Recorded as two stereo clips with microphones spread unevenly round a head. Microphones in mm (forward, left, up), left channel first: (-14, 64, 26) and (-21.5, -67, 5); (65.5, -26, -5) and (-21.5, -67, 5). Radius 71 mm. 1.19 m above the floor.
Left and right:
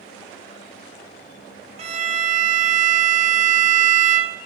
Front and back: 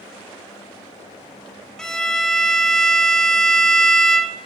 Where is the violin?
65° right, 0.7 m.